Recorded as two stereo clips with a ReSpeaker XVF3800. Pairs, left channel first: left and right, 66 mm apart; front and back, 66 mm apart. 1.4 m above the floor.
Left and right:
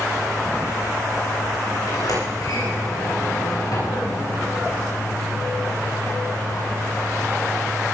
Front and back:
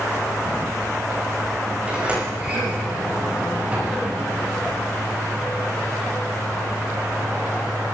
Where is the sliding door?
110° left, 8 m.